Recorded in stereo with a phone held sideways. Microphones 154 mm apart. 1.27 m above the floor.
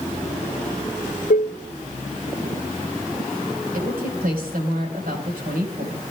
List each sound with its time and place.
1.3 s dishes clattering: 65° left (ahead or behind), 0.6 m
3.7 s a woman speaking: 85° right, 5.5 m